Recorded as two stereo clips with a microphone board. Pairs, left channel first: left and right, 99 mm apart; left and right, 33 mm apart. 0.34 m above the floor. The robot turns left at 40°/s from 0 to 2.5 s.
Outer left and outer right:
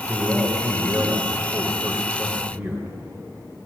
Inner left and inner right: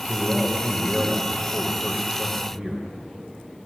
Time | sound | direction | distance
0.1 | a man speaking | 35° right | 1.2 m